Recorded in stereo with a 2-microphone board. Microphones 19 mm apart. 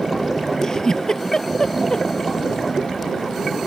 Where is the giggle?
35° left (ahead or behind).